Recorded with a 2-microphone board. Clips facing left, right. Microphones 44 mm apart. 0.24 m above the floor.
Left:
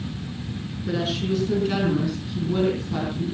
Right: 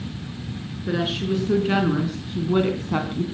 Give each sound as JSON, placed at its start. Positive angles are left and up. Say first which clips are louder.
{"t": 0.9, "sound": "a woman speaking", "louder": "right 1 dB", "side_deg": -20, "distance_m": 3.5}